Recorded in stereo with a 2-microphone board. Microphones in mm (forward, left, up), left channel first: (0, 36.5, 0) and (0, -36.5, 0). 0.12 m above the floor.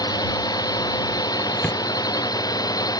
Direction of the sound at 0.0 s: 70° left (ahead or behind).